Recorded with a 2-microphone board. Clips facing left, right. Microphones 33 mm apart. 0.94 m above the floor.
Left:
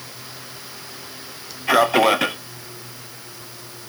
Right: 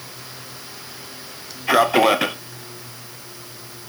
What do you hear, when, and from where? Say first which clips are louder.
1.7 s a man speaking: even; centre (ahead or behind), 0.5 m